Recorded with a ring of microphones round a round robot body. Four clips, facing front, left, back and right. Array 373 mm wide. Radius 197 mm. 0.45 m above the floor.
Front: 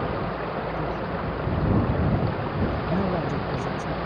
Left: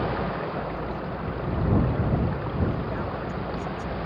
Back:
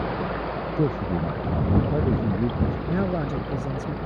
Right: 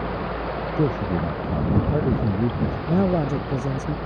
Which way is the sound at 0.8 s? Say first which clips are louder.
Right 8 dB, back 4 dB; 125° right.